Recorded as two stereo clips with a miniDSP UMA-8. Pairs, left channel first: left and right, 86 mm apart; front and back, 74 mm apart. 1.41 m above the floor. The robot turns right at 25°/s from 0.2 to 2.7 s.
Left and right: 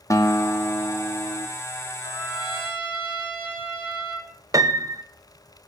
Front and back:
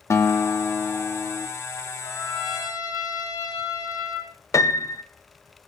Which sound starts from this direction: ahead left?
A guitar, at 0.1 s.